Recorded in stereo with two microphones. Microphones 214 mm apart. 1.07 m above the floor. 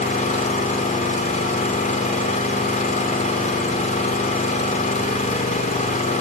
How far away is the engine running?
About 2.5 m.